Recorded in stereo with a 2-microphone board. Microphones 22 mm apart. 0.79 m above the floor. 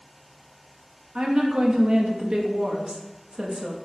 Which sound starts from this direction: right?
A woman speaking, at 1.1 s.